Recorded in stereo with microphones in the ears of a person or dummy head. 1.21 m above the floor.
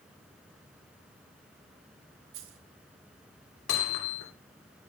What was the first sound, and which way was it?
A dropped coin, 70° right (ahead or behind).